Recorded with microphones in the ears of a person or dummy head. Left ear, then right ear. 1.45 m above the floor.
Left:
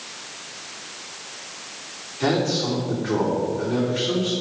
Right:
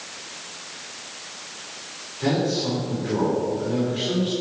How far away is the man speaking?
About 3.5 m.